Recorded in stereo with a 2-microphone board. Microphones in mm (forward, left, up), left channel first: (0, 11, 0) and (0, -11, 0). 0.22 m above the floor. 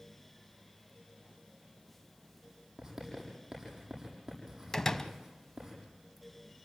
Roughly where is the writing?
Centre.